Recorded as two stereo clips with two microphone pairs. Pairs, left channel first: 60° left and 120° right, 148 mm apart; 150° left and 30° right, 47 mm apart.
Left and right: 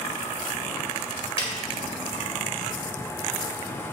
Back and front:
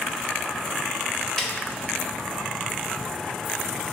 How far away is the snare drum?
About 1.6 m.